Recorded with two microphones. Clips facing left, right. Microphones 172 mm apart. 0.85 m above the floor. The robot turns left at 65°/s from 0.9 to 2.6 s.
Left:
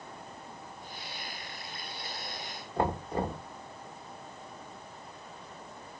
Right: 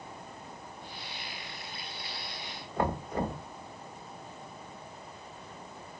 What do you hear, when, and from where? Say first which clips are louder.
2.8 s knocking: left 1 dB; 30° left (ahead or behind), 1.7 m